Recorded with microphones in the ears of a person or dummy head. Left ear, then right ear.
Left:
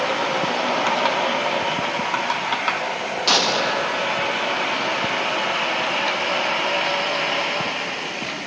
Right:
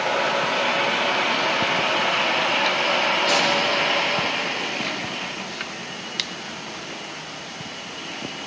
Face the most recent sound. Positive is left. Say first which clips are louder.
# left 1 dB
turn(degrees=45)  # may be behind; listen again after turning